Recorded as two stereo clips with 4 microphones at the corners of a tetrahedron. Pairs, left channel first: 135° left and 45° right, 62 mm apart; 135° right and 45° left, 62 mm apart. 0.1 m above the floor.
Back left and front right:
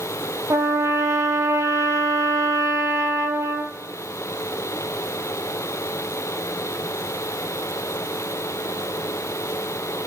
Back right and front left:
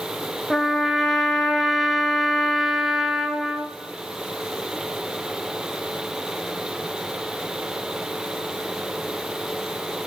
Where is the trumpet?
40° right, 0.7 m.